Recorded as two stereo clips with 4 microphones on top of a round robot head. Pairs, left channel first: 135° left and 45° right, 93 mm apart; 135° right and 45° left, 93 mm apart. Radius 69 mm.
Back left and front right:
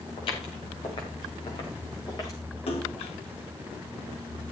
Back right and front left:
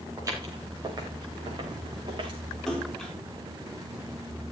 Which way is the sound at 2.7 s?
140° left.